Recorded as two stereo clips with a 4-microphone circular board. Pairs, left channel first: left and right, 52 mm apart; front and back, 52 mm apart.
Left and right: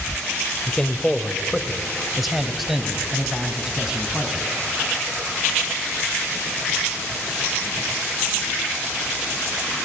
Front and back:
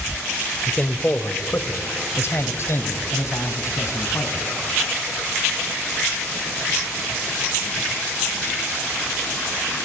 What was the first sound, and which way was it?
A man speaking, 35° left.